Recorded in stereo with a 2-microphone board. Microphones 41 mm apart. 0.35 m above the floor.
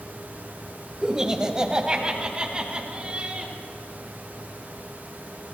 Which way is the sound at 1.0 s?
10° right (ahead or behind).